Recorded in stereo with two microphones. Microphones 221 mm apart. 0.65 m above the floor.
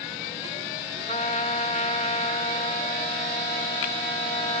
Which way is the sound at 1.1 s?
30° left (ahead or behind).